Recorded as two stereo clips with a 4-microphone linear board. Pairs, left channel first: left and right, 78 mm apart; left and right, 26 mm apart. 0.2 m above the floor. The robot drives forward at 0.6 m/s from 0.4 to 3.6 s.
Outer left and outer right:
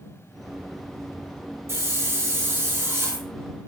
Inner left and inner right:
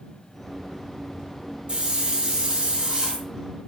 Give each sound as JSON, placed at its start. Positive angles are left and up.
{"t": 1.7, "sound": "a hiss", "side_deg": -35, "distance_m": 1.8}